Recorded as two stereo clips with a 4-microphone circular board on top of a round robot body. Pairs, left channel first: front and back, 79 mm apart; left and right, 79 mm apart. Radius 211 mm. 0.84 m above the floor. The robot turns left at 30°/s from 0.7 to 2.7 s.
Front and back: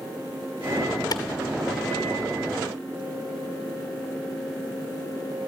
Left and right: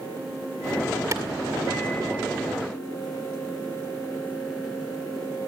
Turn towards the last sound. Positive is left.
turn(degrees=-85)